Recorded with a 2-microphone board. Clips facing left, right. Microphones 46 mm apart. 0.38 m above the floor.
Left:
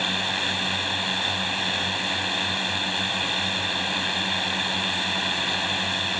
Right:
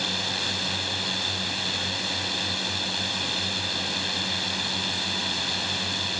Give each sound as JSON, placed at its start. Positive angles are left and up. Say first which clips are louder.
{"t": 0.0, "sound": "a drone", "louder": "left 3 dB", "side_deg": 30}